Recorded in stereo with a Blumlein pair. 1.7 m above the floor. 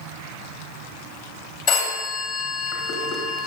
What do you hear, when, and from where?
1.7 s a phone ringing: 40° left, 1.8 m